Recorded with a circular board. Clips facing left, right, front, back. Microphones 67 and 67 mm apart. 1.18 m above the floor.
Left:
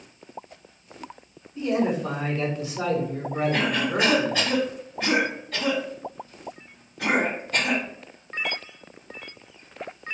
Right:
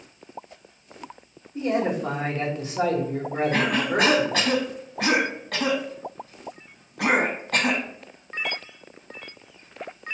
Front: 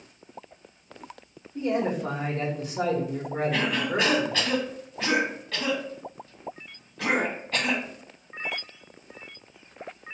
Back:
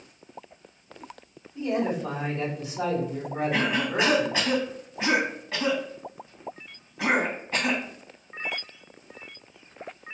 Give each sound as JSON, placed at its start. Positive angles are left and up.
{"t": 1.6, "sound": "a man speaking", "azimuth_deg": -40, "distance_m": 1.6}
{"t": 3.5, "sound": "a cough", "azimuth_deg": -110, "distance_m": 1.8}